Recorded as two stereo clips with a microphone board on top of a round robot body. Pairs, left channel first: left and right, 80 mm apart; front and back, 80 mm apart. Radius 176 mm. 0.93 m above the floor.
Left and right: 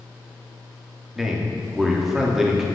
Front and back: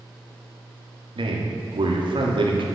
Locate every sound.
1.1 s a man speaking: 175° right, 2.5 m